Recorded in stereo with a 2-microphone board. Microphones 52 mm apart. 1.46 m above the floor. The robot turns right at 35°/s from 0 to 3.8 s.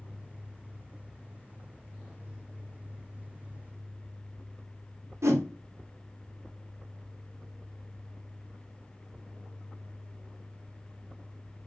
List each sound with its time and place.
5.2 s a whoosh: 65° right (ahead or behind), 0.8 m